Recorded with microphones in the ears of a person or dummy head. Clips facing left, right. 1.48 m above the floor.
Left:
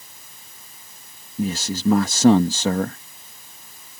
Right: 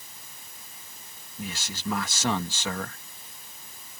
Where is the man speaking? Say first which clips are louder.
Left 13 dB; 35° left (ahead or behind).